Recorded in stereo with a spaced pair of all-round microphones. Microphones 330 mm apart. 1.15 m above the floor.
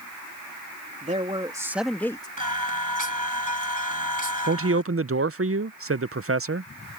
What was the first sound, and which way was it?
A man speaking, 25° right (ahead or behind).